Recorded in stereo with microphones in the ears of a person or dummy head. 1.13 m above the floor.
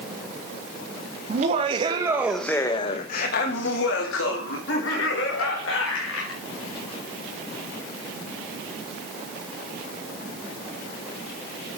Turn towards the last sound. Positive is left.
turn(degrees=85)